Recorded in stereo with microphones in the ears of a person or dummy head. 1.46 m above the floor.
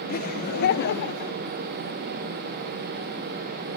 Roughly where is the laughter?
Left.